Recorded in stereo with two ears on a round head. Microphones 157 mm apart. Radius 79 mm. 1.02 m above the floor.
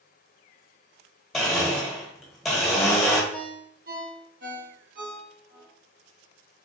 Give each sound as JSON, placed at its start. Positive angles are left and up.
{"t": 1.3, "sound": "a blender", "side_deg": 0, "distance_m": 0.8}
{"t": 3.3, "sound": "a ringtone", "side_deg": -55, "distance_m": 1.4}